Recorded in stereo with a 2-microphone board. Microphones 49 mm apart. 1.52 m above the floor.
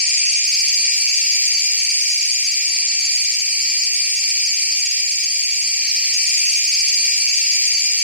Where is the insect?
20° left (ahead or behind), 0.7 m.